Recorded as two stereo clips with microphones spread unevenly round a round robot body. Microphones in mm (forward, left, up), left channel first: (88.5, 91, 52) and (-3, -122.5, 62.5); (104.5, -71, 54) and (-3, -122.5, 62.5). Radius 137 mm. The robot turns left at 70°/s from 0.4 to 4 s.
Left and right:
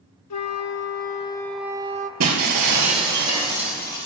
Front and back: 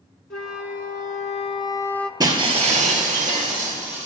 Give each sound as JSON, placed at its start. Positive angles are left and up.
{"t": 0.3, "sound": "a flute", "azimuth_deg": 60, "distance_m": 0.7}
{"t": 2.2, "sound": "breaking glass", "azimuth_deg": -100, "distance_m": 2.5}